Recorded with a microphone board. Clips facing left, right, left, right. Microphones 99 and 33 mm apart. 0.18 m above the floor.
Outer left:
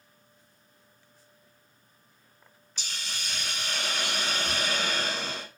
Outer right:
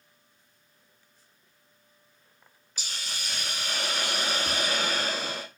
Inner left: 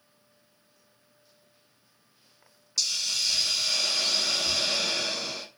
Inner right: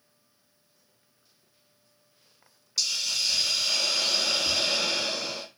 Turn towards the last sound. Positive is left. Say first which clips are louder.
# outer right 1 dB, inner right 1 dB
turn(degrees=-15)  # may be behind; listen again after turning